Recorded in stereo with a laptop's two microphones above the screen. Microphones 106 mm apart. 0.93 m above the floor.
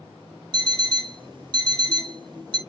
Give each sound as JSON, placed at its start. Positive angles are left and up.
{"t": 0.5, "sound": "an alarm clock", "side_deg": -45, "distance_m": 1.0}